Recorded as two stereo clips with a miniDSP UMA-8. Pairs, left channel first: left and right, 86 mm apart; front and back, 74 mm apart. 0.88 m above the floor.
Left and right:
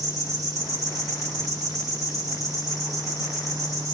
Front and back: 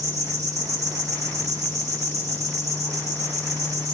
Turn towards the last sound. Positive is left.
turn(degrees=-140)